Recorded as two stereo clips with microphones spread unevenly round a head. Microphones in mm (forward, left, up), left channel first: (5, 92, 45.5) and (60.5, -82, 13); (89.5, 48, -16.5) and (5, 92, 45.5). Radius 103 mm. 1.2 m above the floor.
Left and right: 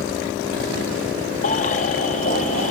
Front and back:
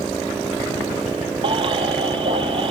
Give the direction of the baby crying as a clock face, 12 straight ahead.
7 o'clock.